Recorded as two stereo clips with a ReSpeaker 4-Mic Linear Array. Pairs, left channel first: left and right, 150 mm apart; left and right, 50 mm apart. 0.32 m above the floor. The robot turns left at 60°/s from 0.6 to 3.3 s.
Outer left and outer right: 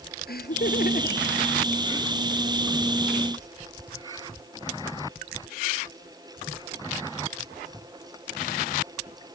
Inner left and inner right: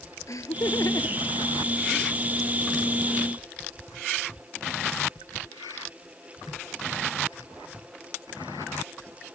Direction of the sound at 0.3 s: 80° left.